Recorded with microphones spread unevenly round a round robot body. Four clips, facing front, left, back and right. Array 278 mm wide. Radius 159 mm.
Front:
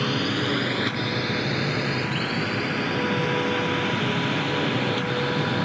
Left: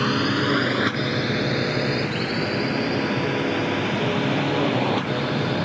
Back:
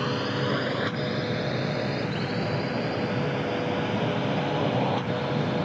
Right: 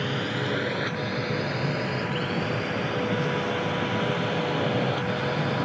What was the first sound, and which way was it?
A drone, 105° left.